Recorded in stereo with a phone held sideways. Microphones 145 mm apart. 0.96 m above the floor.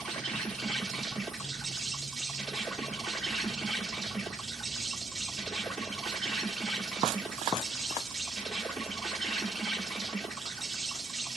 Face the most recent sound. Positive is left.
turn(degrees=0)  # may be behind; listen again after turning